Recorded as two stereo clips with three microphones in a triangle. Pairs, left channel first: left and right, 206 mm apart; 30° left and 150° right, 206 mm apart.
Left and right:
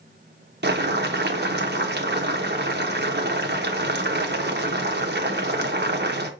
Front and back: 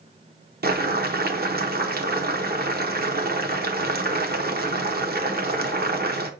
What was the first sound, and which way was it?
Boiling, 115° right.